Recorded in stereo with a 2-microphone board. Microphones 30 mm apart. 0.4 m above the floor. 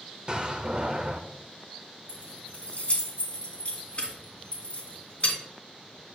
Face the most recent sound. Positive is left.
turn(degrees=45)  # may be behind; listen again after turning